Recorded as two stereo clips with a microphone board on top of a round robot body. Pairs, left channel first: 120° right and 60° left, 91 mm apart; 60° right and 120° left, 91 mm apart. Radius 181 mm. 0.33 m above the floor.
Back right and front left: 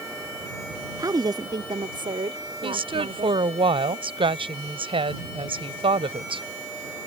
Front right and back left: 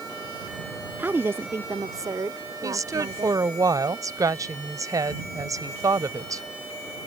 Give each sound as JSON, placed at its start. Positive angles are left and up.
{"t": 1.0, "sound": "a woman speaking", "azimuth_deg": 60}
{"t": 2.6, "sound": "a woman speaking", "azimuth_deg": 70}